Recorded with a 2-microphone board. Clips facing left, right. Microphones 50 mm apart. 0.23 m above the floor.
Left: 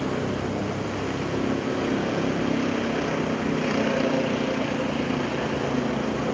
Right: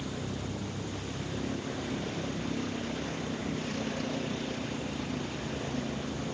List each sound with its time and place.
0.0 s a vehicle: 65° left (ahead or behind)